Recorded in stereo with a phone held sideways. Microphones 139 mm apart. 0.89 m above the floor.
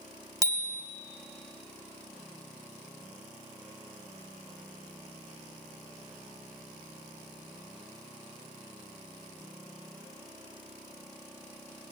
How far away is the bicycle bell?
About 2 m.